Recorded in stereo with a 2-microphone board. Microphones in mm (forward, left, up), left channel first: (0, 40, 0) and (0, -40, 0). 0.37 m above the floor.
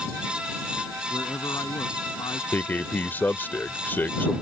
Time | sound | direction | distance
1.1 | a man speaking | 40° left (ahead or behind) | ?
2.5 | a man speaking | 25° left (ahead or behind) | ?